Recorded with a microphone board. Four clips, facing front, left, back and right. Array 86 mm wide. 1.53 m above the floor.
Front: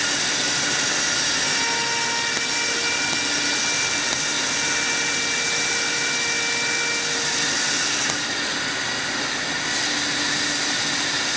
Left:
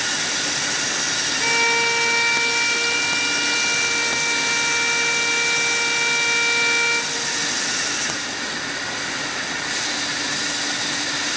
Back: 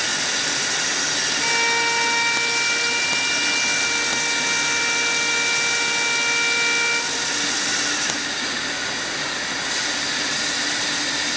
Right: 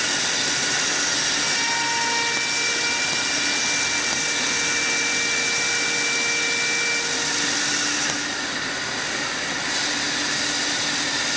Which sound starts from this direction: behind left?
A violin, at 1.4 s.